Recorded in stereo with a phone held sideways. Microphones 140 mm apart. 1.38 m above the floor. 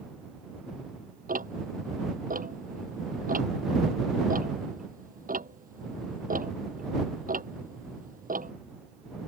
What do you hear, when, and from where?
1.3 s ticking: 80° right